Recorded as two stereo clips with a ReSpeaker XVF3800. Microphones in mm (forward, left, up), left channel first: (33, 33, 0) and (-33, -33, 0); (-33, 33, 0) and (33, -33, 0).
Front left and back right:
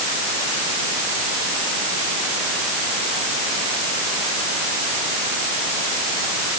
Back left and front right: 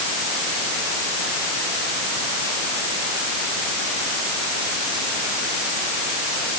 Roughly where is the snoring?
No snoring in this recording.